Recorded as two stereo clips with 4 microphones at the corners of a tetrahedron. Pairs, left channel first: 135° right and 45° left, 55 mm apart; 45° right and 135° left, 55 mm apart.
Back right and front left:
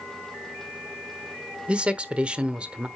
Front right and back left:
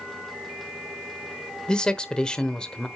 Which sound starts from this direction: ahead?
A man speaking, at 1.7 s.